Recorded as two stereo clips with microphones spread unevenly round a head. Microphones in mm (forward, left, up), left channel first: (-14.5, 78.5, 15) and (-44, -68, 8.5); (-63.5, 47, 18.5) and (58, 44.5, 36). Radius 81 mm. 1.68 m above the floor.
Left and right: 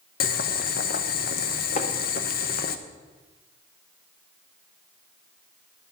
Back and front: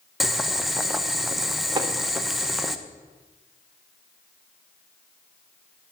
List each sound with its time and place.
0.2 s boiling: 85° left, 0.9 m
1.8 s tapping: 40° left, 1.2 m